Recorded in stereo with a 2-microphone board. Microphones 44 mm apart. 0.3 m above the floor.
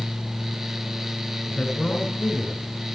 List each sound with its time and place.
1.5 s a man speaking: 20° left (ahead or behind), 3 m